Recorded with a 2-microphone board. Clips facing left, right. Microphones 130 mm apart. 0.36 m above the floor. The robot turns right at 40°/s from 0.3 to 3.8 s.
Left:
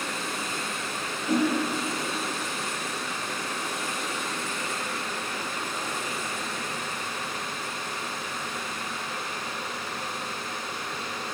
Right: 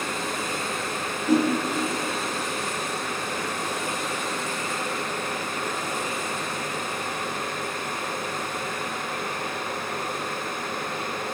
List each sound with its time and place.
1.3 s a whoosh: 35° right (ahead or behind), 2 m; by 1.5 s 30° right (ahead or behind), 2 m